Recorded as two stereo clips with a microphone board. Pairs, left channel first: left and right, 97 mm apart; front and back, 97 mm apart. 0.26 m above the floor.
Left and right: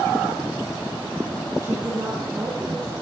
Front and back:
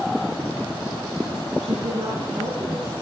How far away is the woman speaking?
About 4 m.